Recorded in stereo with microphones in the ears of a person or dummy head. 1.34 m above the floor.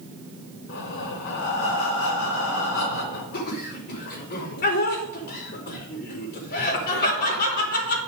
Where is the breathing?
65° left (ahead or behind), 3.5 m.